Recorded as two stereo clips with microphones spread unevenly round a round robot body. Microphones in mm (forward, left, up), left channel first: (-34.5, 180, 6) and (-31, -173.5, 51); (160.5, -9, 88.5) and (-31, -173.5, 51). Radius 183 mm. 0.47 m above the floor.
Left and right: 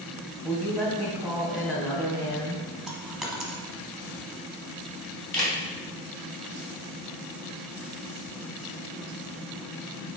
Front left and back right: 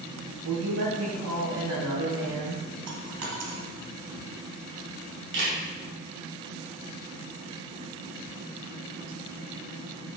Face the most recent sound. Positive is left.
turn(degrees=175)